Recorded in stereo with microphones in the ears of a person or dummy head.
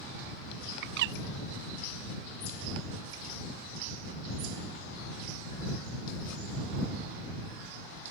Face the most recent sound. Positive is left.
turn(degrees=-65)  # may be behind; listen again after turning